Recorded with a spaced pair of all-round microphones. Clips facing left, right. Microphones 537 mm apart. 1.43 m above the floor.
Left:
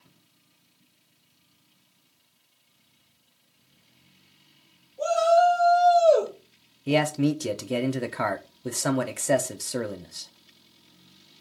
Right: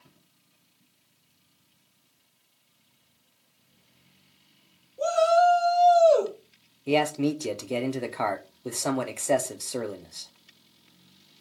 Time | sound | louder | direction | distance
5.0 | a shout | left 1 dB | 20° left (ahead or behind) | 1.9 m
6.9 | a man speaking | left 1 dB | 40° left (ahead or behind) | 0.5 m